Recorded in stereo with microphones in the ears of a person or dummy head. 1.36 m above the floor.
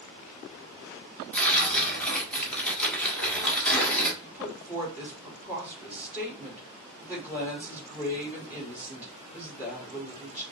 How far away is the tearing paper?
About 1.3 m.